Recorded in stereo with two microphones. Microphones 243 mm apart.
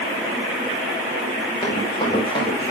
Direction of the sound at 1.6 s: 20° left (ahead or behind).